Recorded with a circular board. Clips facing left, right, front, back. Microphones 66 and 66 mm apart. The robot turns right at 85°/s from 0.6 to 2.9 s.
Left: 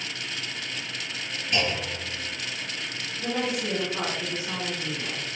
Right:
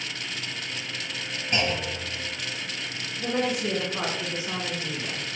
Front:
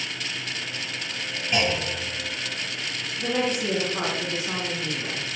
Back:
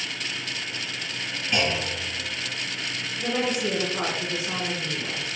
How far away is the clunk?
About 1.9 m.